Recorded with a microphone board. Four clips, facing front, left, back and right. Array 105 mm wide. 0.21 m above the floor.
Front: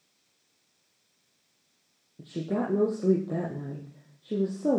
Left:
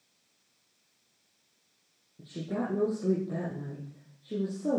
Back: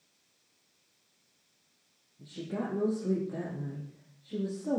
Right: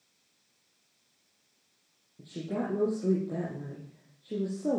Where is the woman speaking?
5° right, 7 m.